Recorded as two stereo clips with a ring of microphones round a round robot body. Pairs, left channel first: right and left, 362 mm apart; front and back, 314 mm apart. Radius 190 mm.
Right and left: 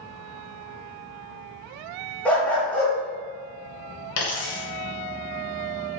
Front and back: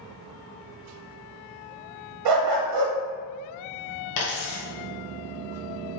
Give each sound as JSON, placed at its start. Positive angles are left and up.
{"t": 2.2, "sound": "a dog barking", "azimuth_deg": -175, "distance_m": 1.1}
{"t": 4.2, "sound": "a dropped coin", "azimuth_deg": -40, "distance_m": 1.2}